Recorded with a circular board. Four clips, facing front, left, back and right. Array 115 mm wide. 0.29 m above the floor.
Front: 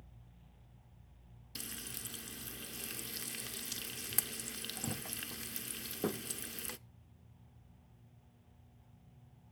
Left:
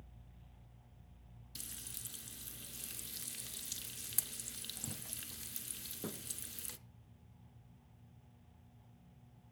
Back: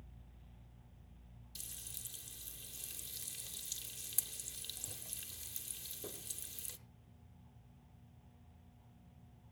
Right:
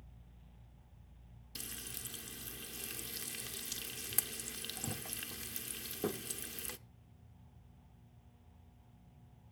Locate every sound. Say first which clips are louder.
1.6 s frying: right 7 dB, front 15 dB; 25° right, 0.5 m